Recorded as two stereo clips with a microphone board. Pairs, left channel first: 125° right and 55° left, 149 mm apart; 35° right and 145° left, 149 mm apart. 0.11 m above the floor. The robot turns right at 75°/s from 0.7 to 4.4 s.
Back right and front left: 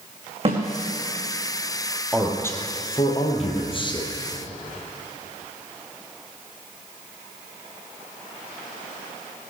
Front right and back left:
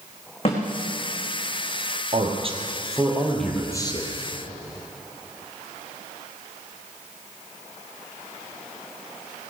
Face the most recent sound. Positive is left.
turn(degrees=-45)